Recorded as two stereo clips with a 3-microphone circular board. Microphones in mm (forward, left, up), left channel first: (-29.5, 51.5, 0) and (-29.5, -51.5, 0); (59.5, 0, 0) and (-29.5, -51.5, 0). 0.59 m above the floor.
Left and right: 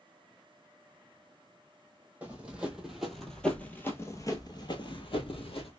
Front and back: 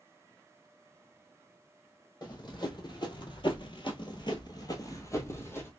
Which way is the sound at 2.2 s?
15° right.